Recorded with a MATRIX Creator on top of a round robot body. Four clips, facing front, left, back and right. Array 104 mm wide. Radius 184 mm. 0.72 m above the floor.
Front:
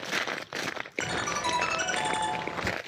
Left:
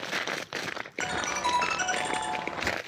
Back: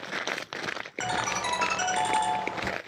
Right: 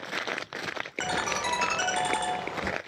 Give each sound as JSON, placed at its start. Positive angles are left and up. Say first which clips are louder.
{"t": 1.0, "sound": "a ringtone", "louder": "even, back 1 dB", "azimuth_deg": -105, "distance_m": 2.5}